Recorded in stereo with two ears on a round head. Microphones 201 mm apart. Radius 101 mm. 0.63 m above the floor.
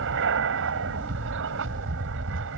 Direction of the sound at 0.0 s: 60° right (ahead or behind).